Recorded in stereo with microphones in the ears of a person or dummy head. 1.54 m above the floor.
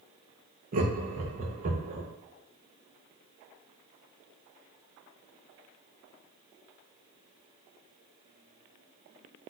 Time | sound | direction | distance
0.7 | laughter | 40° right (ahead or behind) | 0.6 m